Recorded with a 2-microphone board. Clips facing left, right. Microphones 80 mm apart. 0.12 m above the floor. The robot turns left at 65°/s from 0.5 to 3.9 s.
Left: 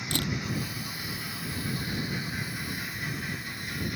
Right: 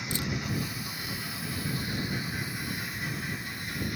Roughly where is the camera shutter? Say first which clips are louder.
Left 3 dB; left.